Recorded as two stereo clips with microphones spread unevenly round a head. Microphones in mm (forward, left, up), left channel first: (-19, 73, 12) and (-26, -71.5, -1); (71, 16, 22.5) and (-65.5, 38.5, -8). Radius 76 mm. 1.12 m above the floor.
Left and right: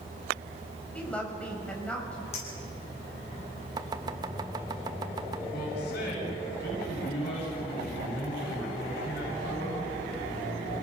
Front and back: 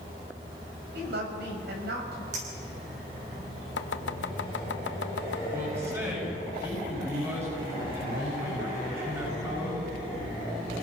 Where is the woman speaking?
170° left, 5.5 m.